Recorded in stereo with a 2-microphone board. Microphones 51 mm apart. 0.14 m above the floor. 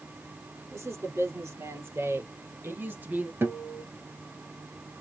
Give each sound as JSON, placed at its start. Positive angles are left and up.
{"t": 0.7, "sound": "a woman speaking", "side_deg": -65, "distance_m": 4.0}
{"t": 3.4, "sound": "a guitar", "side_deg": -50, "distance_m": 1.4}